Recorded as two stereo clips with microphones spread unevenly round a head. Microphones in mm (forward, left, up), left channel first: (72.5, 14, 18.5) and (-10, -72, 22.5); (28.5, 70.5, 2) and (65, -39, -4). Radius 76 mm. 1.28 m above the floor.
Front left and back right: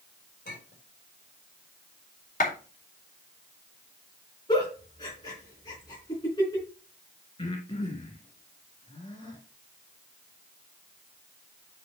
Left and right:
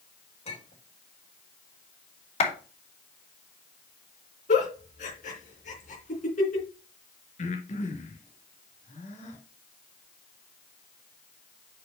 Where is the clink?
80° left, 3.5 m.